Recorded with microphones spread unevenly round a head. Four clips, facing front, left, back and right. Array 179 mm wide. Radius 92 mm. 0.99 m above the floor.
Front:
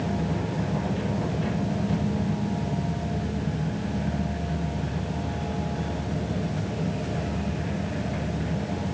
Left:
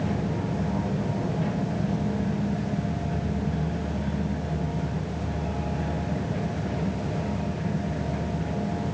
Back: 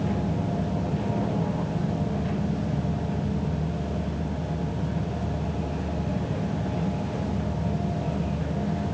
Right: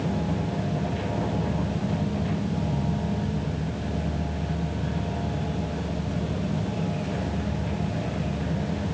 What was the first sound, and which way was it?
Only background noise.